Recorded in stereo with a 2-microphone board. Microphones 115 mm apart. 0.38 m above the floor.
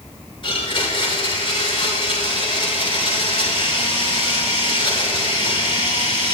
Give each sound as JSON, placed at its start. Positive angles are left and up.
{"t": 0.4, "sound": "a blender", "side_deg": 45, "distance_m": 6.5}